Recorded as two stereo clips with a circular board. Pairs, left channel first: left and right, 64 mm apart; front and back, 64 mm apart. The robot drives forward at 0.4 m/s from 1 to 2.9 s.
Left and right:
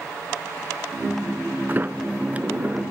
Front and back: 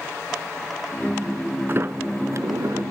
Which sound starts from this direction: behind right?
A sliding door, at 1.7 s.